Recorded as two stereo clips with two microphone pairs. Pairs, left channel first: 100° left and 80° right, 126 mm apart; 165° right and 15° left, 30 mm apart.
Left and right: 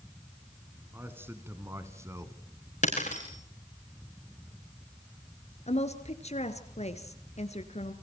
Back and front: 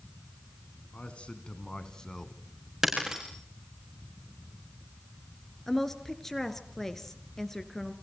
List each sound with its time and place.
0.9 s a man speaking: 150° right, 2 m; by 2.3 s 110° right, 1.6 m
2.8 s breaking glass: 90° left, 6 m
5.7 s a woman speaking: 115° left, 2.5 m